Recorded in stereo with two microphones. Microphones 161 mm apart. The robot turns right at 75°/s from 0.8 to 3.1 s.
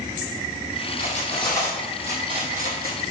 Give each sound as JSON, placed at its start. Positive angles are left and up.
{"t": 1.0, "sound": "cutlery clinking", "side_deg": 60, "distance_m": 2.5}